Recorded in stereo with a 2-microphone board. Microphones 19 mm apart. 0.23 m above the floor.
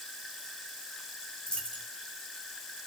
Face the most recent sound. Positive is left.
turn(degrees=85)